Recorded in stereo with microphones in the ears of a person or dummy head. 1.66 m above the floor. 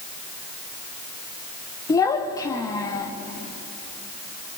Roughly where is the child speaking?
Centre.